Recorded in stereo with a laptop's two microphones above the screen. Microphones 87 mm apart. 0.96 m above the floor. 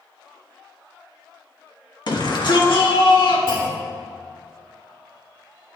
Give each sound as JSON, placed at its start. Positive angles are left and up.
{"t": 2.1, "sound": "a shout", "side_deg": 55, "distance_m": 1.5}
{"t": 3.5, "sound": "a clunk", "side_deg": 80, "distance_m": 3.0}